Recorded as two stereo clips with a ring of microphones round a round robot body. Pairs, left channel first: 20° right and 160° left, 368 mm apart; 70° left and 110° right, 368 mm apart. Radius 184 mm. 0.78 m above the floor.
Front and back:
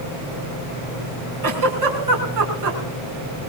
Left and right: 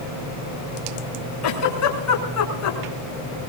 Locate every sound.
1.4 s a giggle: 115° left, 6 m